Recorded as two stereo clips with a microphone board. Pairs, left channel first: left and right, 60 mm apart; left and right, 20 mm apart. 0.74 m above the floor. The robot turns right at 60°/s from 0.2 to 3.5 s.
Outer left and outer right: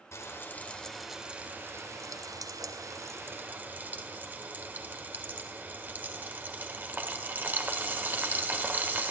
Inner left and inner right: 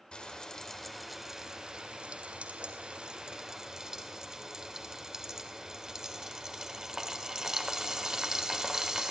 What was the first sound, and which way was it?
Frying, 50° left (ahead or behind).